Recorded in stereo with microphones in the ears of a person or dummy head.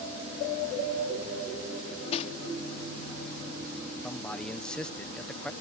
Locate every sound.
1.8 s cutlery clinking: 40° left (ahead or behind)
4.0 s a man speaking: 5° left (ahead or behind)